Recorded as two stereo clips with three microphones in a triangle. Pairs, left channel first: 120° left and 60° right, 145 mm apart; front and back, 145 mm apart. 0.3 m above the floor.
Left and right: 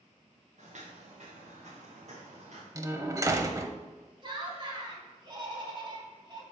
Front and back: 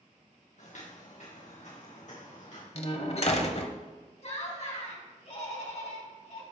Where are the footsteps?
30° right, 3 m.